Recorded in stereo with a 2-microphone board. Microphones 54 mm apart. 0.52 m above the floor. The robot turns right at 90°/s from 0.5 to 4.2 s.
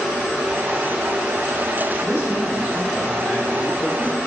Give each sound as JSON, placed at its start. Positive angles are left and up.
{"t": 2.0, "sound": "a man speaking", "azimuth_deg": -75, "distance_m": 2.5}